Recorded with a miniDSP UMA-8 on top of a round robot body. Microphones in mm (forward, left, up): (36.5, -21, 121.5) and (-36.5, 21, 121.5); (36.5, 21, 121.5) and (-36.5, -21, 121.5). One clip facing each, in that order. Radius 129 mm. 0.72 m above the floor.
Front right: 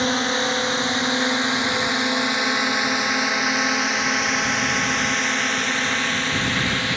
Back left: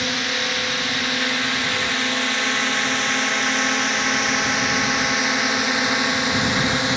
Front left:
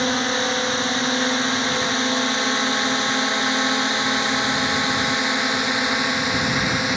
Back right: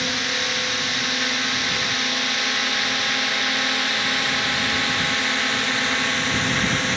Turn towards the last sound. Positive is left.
turn(degrees=95)